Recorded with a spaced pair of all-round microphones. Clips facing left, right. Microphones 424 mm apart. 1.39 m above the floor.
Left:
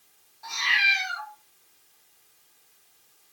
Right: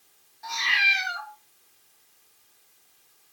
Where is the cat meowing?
30° right (ahead or behind), 0.9 m.